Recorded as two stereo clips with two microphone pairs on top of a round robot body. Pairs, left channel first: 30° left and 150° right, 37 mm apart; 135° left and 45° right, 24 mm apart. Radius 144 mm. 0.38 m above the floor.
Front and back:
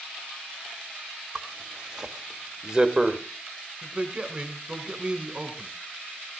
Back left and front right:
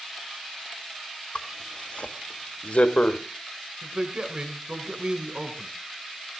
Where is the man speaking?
90° right, 2.5 m.